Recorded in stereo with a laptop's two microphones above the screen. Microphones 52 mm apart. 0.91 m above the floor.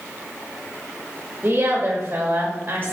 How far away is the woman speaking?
About 1.1 m.